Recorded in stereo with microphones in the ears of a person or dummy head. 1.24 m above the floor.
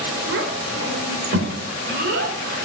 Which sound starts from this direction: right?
A child speaking, at 0.3 s.